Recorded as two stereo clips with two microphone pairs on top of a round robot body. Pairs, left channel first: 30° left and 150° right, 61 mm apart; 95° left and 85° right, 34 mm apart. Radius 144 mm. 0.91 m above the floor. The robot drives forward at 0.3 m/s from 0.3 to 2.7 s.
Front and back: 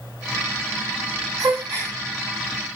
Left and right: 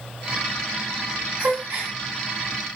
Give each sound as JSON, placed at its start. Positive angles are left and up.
{"t": 1.4, "sound": "a gasp", "azimuth_deg": -135, "distance_m": 1.4}